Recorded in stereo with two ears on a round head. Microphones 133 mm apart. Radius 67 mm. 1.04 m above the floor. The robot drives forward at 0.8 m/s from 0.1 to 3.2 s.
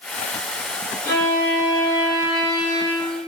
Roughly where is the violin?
Centre.